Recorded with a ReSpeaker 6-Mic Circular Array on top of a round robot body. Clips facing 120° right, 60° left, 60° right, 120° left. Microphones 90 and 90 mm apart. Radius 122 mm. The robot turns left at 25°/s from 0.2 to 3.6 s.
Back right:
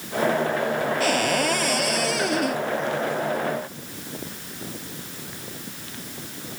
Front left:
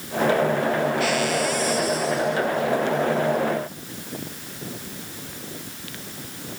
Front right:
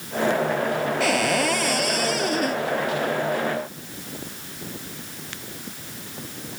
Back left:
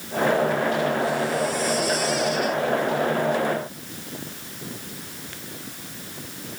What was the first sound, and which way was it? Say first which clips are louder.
A cupboard door: even, front right 1 dB; 70° right.